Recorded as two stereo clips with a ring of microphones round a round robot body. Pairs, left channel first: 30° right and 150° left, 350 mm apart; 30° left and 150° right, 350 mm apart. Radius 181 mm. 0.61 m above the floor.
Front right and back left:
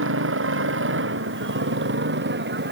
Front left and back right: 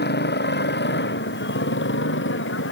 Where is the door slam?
I don't hear a door slam.